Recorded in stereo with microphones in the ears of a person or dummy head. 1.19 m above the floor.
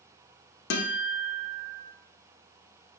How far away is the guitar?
About 0.5 m.